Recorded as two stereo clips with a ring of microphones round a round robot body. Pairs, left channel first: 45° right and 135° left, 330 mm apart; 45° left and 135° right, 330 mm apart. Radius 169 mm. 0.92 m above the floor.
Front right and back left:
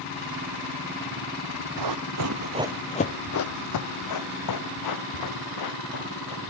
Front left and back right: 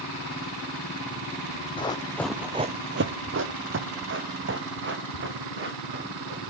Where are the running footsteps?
120° left, 1.7 m; by 6.4 s 75° right, 6 m.